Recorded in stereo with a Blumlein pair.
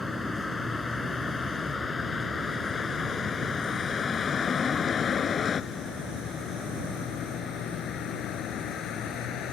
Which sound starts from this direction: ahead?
A vehicle, at 0.0 s.